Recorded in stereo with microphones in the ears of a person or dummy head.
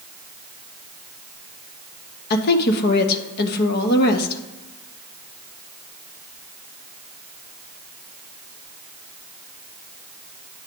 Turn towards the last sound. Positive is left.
turn(degrees=55)  # may be behind; listen again after turning